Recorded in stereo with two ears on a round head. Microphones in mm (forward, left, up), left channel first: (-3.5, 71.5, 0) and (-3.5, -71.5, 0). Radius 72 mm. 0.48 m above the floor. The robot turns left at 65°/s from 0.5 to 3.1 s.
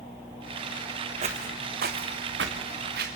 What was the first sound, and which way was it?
Footsteps, 40° right (ahead or behind).